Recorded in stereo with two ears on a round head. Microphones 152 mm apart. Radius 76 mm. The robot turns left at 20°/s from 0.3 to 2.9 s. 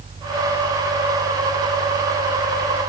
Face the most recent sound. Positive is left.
No sound to turn to.